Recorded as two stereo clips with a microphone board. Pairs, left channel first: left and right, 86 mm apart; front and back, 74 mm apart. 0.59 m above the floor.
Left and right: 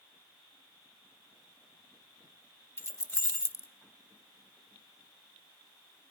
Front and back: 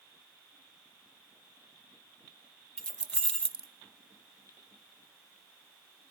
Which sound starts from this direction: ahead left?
Keys jangling, at 2.8 s.